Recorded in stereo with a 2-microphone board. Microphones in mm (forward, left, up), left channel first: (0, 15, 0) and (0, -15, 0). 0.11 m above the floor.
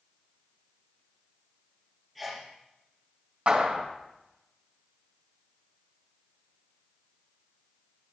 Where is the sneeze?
Centre (ahead or behind), 3 m.